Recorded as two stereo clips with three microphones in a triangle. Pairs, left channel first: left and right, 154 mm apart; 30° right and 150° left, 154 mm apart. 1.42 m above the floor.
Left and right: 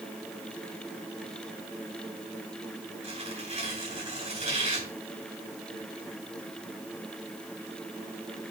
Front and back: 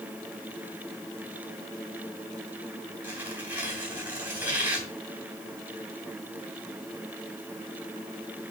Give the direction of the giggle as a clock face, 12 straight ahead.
I don't hear a giggle.